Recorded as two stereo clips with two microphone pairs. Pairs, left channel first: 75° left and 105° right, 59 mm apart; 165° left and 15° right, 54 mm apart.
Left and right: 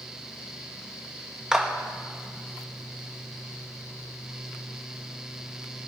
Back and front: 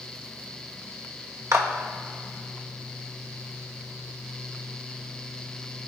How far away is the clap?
About 1.3 m.